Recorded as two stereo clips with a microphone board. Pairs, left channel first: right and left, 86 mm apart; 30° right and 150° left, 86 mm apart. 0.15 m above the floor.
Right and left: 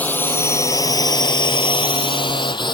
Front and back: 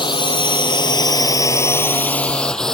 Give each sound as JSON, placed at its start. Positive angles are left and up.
{"t": 0.0, "sound": "a drone", "azimuth_deg": -20}